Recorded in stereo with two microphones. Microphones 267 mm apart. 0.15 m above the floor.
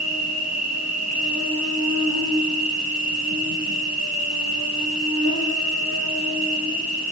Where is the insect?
75° right (ahead or behind), 2 m.